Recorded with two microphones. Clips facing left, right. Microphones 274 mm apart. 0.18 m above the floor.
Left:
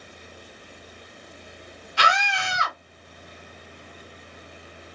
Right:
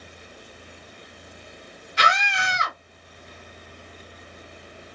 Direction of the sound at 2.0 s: 20° right (ahead or behind).